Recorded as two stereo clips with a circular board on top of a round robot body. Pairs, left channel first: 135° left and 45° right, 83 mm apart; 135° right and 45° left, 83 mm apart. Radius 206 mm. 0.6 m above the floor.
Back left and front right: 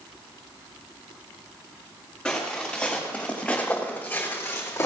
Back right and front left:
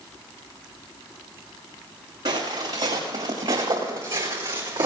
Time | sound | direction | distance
2.2 | footsteps | 50° left | 5 m